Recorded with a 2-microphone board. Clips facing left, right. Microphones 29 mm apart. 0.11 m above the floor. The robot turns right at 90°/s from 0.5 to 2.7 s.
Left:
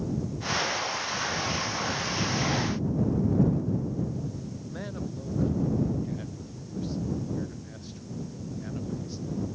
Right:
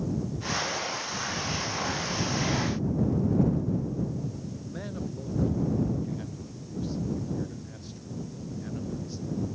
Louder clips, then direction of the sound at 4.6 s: Even; 5° left (ahead or behind).